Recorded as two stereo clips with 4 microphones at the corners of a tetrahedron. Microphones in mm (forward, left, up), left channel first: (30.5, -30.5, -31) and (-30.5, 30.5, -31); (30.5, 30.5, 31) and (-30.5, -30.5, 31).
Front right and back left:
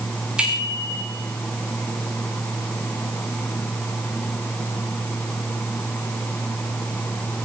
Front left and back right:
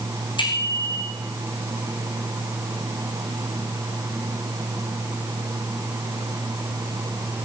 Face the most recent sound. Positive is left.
turn(degrees=55)